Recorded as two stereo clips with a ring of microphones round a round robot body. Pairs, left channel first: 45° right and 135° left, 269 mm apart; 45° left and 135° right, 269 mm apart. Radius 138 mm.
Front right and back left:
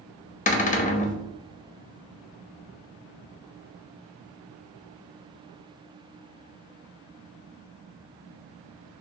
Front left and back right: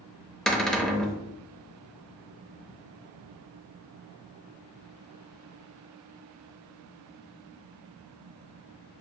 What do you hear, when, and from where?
0.5 s a cupboard door: 40° right, 0.7 m